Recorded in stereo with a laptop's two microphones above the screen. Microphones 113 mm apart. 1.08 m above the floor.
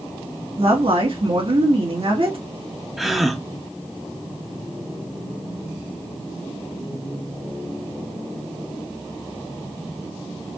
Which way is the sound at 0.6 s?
55° right (ahead or behind).